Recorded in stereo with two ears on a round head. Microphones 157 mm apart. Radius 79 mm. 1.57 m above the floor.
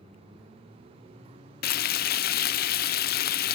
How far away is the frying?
About 0.6 m.